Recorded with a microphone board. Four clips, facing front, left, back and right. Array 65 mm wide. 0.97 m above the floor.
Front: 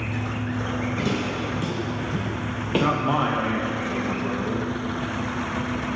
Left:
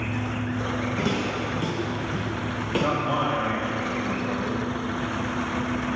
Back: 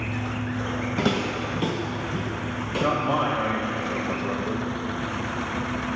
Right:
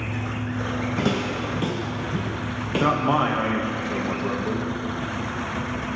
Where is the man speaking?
75° right, 0.9 m.